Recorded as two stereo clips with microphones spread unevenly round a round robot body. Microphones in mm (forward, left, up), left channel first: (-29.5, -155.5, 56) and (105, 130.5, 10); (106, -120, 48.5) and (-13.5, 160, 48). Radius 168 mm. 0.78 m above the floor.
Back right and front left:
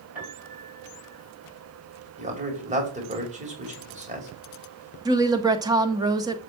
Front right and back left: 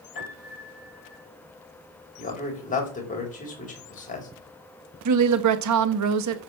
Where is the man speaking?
Straight ahead, 5 m.